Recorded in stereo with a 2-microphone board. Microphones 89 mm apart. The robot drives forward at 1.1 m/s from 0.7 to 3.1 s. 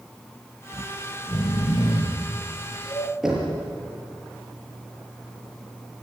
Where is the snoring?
70° left (ahead or behind), 2 m; by 3.1 s 50° left (ahead or behind), 2.5 m.